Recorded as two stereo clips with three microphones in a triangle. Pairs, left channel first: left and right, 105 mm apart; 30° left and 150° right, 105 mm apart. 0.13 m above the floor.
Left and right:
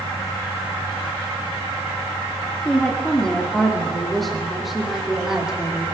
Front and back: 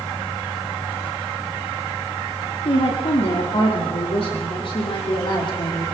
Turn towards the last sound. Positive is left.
turn(degrees=-10)